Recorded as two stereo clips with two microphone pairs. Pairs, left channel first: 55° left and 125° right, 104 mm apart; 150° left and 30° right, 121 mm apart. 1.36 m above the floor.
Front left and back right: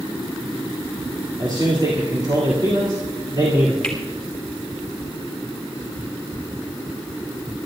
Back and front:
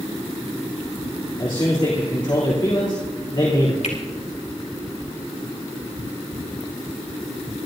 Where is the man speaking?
165° right, 3 m.